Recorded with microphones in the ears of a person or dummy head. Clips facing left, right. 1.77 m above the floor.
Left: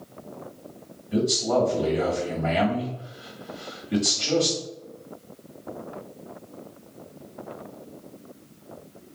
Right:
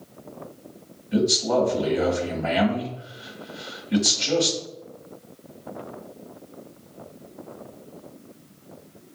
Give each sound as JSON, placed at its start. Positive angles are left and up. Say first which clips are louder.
{"t": 1.1, "sound": "a man speaking", "louder": "right 1 dB", "side_deg": 0, "distance_m": 1.4}